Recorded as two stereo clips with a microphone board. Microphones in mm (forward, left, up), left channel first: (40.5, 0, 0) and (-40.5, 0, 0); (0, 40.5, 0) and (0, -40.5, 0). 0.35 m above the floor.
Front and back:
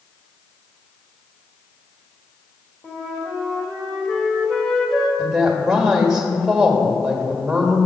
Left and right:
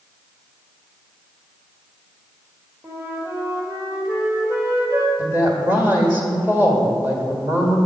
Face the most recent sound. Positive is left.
turn(degrees=-110)